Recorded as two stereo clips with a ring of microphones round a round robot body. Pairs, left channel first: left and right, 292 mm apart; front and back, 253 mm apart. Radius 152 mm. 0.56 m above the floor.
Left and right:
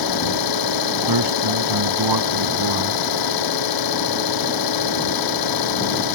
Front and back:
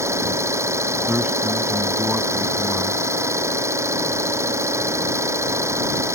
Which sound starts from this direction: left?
An engine running, at 0.0 s.